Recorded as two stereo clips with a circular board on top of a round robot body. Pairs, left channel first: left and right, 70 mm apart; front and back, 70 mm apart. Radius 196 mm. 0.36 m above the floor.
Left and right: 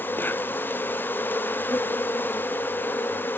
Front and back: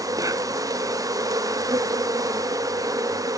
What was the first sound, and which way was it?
An insect, 150° left.